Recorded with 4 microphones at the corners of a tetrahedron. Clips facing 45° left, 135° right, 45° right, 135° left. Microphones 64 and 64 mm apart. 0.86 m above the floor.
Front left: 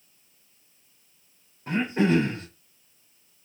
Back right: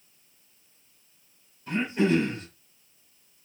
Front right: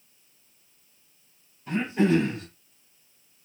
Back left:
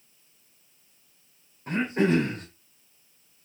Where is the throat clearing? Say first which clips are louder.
Front left 1 dB, front right 1 dB; 95° left, 2.5 m.